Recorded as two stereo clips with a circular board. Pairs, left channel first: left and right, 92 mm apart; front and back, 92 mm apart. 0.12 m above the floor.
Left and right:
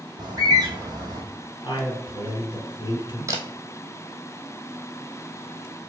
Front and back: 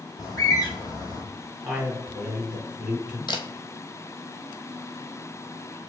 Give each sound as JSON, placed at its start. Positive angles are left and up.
{"t": 0.2, "sound": "a bird", "azimuth_deg": -45, "distance_m": 1.1}
{"t": 1.6, "sound": "a man speaking", "azimuth_deg": 115, "distance_m": 2.5}
{"t": 3.3, "sound": "a camera shutter", "azimuth_deg": -35, "distance_m": 0.8}